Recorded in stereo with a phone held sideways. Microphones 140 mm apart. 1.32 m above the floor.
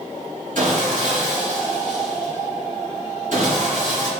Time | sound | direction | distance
0.6 | sawing | 70° right (ahead or behind) | 3 m